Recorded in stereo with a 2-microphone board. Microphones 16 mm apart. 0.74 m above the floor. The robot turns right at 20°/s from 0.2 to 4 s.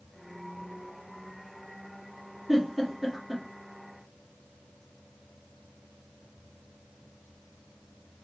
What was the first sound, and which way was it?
A giggle, centre (ahead or behind).